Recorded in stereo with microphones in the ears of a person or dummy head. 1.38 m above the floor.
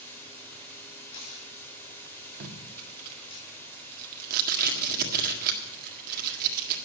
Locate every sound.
0.0 s running water: 15° left (ahead or behind), 3.5 m
1.0 s tearing paper: 80° left, 2.5 m
2.4 s tape being pulled: 50° right (ahead or behind), 1.6 m